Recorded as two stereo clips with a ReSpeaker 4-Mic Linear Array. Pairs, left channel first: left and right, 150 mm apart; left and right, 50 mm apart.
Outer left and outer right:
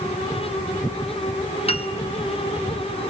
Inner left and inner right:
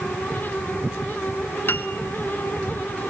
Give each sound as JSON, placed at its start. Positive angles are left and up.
{"t": 1.7, "sound": "a piano", "side_deg": 40, "distance_m": 1.0}